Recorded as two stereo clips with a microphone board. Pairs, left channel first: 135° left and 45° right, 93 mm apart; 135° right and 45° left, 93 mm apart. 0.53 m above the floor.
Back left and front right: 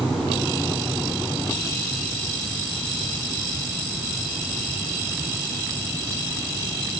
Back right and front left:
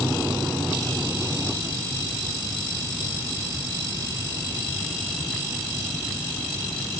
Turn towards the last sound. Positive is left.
No sound to turn to.